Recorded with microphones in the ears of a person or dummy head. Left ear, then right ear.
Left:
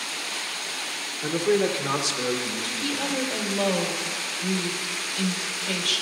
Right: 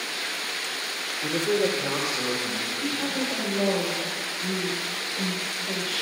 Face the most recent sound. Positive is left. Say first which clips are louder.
# left 1 dB
turn(degrees=80)